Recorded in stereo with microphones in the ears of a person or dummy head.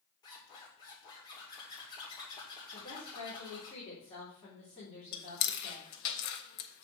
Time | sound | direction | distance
0.2 | a zipper | 25° left (ahead or behind) | 2.5 m
2.7 | a woman speaking | 5° left (ahead or behind) | 3.5 m
5.1 | chewing | 55° left (ahead or behind) | 0.9 m